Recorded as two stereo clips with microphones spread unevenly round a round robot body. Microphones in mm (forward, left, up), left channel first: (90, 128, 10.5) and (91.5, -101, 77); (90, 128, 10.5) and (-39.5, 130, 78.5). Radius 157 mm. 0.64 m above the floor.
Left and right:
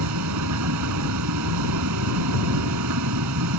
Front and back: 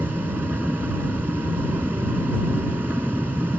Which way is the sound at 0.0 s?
100° right.